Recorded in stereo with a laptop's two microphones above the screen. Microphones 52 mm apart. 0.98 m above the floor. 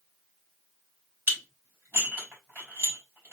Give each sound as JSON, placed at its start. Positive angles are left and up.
{"t": 1.3, "sound": "dishes clattering", "side_deg": -40, "distance_m": 3.0}